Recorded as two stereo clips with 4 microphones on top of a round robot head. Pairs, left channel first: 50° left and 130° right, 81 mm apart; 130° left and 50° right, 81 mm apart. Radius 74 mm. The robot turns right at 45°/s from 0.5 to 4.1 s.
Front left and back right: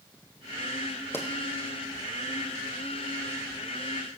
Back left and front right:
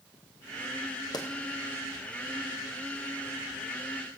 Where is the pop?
110° left, 1.4 m; by 1.3 s 115° left, 1.4 m.